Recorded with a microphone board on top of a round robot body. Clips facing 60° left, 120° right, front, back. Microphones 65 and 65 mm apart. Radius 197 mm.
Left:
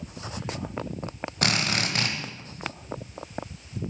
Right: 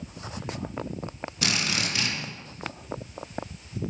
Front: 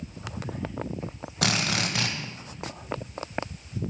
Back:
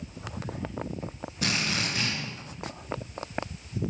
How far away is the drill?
About 1.2 m.